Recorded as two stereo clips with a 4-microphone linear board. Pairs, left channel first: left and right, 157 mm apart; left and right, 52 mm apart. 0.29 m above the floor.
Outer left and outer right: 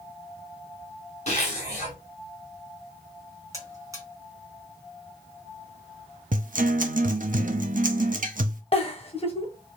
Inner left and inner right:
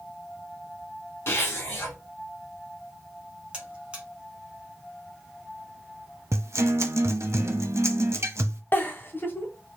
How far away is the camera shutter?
I don't hear a camera shutter.